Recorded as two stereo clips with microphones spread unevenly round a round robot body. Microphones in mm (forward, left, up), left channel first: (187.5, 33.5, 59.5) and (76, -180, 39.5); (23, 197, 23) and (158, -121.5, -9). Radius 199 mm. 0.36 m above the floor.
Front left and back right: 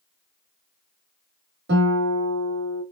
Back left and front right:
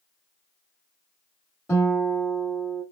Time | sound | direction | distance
1.7 | a guitar | 160° right | 1.4 m